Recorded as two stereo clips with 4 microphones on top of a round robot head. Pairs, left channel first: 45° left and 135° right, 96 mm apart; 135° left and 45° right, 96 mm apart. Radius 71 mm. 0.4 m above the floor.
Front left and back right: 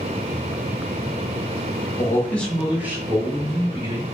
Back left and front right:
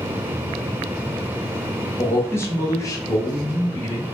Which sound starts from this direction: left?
A man speaking, at 2.0 s.